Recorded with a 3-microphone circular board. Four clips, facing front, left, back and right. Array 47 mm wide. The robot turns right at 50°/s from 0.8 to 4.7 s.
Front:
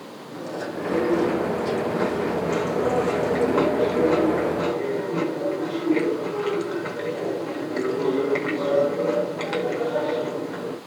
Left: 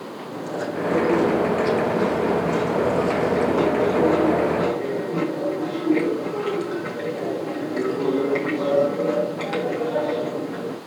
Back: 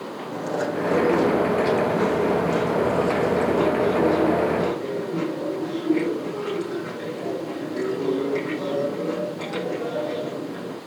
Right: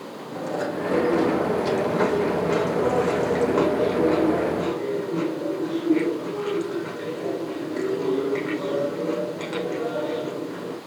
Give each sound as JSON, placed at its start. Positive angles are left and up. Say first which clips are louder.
{"t": 0.3, "sound": "chewing", "louder": "right 1 dB, back 5 dB", "azimuth_deg": -170, "distance_m": 6.0}